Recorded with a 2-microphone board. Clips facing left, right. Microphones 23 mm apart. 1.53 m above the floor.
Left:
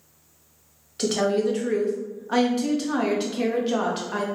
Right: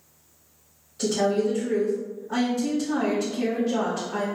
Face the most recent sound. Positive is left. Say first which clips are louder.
# left 1 dB
turn(degrees=70)  # may be behind; listen again after turning